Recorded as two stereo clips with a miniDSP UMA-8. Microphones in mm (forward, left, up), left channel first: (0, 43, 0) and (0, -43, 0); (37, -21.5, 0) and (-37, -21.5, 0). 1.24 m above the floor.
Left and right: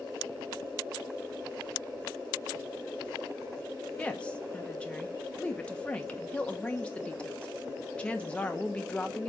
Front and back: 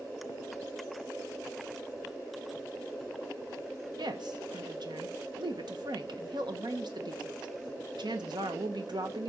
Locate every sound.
4.0 s a woman speaking: 165° left, 1.0 m